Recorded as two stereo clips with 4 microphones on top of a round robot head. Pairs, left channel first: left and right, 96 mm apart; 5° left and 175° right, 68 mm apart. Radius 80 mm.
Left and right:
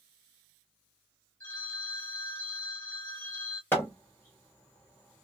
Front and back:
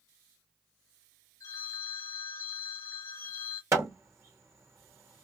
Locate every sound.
1.4 s a phone ringing: 20° left, 1.0 m
3.7 s hammering: 160° left, 0.8 m